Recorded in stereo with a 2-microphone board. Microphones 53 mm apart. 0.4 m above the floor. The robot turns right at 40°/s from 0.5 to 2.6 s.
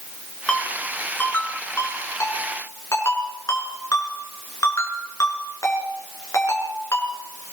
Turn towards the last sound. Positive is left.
turn(degrees=80)